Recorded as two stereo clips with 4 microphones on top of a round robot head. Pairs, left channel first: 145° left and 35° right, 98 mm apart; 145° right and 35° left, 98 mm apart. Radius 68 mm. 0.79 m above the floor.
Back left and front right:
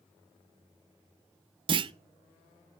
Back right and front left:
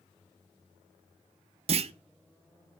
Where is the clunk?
10° left, 0.6 m.